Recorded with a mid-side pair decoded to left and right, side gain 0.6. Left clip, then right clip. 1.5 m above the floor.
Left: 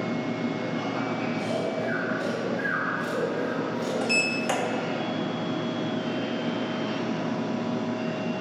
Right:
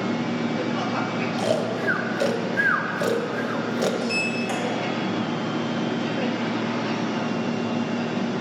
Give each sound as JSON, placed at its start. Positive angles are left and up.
{"t": 0.0, "sound": "a machine running", "azimuth_deg": -45, "distance_m": 0.8}
{"t": 1.4, "sound": "snoring", "azimuth_deg": -65, "distance_m": 1.0}
{"t": 4.0, "sound": "a sliding door", "azimuth_deg": 30, "distance_m": 1.8}